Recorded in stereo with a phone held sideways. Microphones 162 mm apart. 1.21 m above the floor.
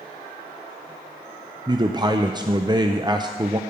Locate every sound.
1.7 s a man speaking: 25° right (ahead or behind), 0.5 m